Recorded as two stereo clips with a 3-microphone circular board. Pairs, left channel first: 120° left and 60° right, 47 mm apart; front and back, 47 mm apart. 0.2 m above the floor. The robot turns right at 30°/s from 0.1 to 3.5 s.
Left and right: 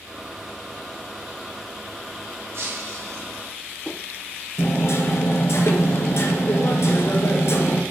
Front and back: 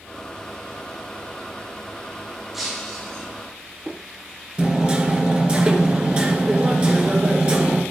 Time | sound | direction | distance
2.5 | breaking glass | 95° right | 5 m
4.6 | hammering | 115° left | 2.5 m